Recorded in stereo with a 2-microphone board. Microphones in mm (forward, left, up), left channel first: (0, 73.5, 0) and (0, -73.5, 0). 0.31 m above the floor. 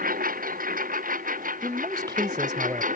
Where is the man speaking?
30° right (ahead or behind).